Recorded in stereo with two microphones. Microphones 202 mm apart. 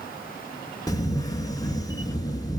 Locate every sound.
0.9 s a camera shutter: 20° left (ahead or behind), 2.0 m